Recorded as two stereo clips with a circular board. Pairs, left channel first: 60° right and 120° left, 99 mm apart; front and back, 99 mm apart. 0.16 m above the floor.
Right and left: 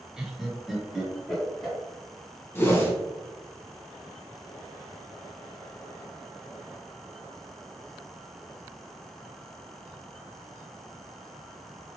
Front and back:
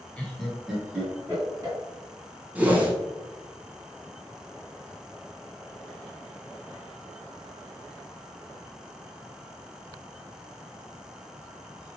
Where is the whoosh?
110° right, 0.8 m.